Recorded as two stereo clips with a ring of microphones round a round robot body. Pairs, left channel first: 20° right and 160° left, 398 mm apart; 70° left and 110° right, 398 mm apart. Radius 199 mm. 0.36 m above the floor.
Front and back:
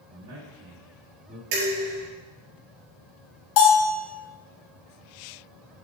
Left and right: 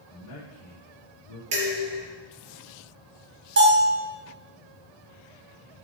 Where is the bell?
55° right, 3 m.